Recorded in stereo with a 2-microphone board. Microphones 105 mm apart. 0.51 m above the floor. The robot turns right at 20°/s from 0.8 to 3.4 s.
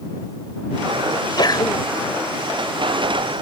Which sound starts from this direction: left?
A sneeze, at 1.1 s.